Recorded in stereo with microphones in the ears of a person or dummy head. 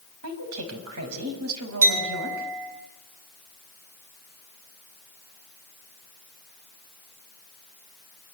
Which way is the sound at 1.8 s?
75° right (ahead or behind).